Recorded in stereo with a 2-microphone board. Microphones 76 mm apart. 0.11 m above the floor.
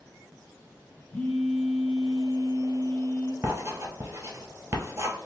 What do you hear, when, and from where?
1.1 s a phone buzzing: 15° left (ahead or behind), 1.2 m
3.4 s writing: 40° right (ahead or behind), 0.9 m